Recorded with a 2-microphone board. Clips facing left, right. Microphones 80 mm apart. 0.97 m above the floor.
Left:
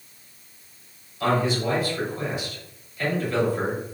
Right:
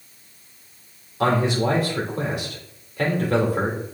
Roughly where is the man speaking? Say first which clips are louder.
Right 3 dB; right.